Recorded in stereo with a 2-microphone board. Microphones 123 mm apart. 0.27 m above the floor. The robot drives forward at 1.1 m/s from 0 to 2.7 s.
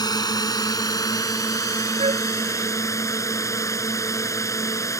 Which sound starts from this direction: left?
A drone, at 0.0 s.